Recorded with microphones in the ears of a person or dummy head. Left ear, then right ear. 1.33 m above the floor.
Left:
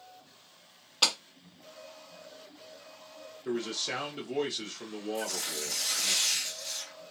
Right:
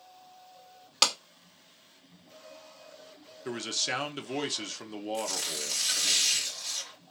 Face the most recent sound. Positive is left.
turn(degrees=-50)  # may be behind; listen again after turning